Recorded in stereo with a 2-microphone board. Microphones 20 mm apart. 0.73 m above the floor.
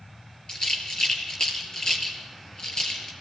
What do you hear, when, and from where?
0.5 s a rattle: 40° left (ahead or behind), 3.5 m